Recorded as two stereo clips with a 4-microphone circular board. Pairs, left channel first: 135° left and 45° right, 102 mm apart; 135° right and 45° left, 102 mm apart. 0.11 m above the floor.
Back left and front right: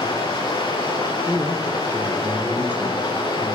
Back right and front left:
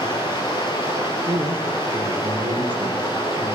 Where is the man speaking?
25° left, 3 m.